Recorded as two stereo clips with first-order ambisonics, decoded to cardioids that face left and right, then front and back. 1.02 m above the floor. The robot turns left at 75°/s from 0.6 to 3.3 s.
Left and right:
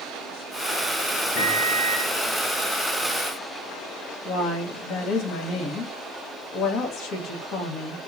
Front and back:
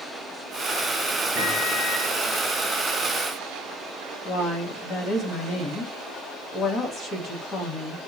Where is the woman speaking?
50° left, 0.9 m.